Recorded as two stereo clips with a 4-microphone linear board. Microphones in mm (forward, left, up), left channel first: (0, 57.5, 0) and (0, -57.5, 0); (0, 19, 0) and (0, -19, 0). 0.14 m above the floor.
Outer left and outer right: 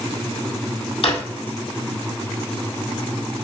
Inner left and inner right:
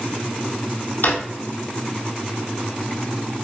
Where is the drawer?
60° left (ahead or behind), 1.4 m.